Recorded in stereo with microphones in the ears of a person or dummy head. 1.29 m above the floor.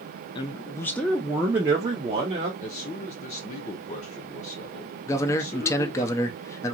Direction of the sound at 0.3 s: 25° left (ahead or behind).